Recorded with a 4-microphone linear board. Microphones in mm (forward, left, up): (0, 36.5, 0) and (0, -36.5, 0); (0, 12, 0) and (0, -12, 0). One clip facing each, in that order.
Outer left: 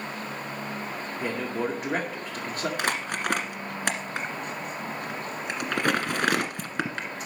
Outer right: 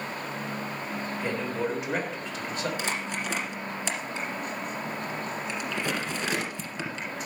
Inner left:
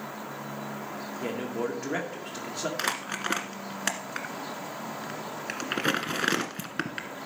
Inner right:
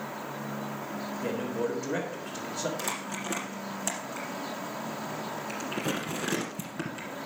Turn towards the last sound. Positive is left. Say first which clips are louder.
# outer left 3 dB, inner left 4 dB
turn(degrees=60)  # may be behind; listen again after turning